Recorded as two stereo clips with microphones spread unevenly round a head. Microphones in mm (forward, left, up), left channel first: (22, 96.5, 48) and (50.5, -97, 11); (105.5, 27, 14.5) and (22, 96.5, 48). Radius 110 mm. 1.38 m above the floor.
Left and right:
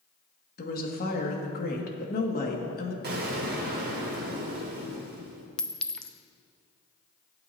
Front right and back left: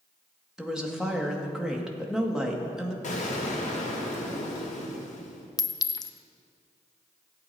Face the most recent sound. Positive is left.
turn(degrees=20)